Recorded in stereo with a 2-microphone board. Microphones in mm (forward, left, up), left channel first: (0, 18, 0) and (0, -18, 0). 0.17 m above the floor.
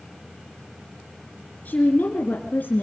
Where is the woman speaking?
50° left (ahead or behind), 2 m; by 2.8 s 60° left (ahead or behind), 2.0 m.